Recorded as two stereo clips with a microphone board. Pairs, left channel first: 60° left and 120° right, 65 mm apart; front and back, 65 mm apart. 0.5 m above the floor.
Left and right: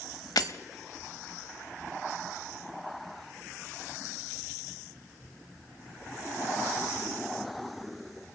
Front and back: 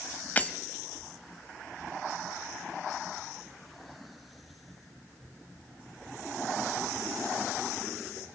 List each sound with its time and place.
0.4 s breaking glass: 65° left, 0.9 m